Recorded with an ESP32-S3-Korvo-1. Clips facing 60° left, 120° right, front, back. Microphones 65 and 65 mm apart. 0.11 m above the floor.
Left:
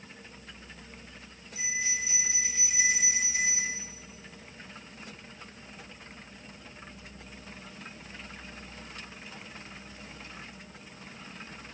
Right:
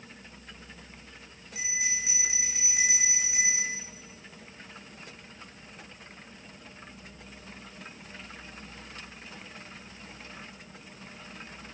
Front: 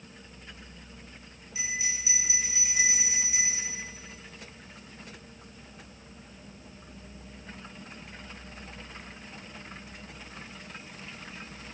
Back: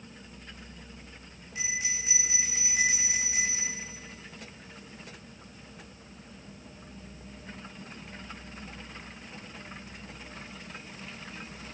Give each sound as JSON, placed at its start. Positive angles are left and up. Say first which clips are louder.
{"t": 1.6, "sound": "a bell", "louder": "even, even", "azimuth_deg": -140, "distance_m": 2.0}